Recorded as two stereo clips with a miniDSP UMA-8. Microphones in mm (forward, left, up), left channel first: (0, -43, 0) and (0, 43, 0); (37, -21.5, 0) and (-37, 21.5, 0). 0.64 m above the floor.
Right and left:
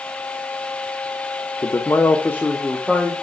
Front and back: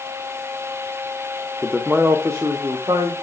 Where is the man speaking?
125° right, 1.0 m; by 3.1 s straight behind, 2.0 m.